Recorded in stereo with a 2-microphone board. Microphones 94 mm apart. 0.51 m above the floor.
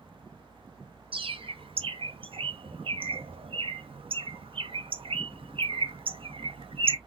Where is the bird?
70° right (ahead or behind), 0.5 m.